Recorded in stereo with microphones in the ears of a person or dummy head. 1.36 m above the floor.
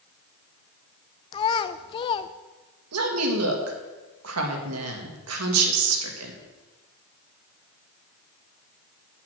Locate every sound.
1.3 s a child speaking: 30° left (ahead or behind), 0.6 m
2.9 s a woman speaking: 85° right, 1.8 m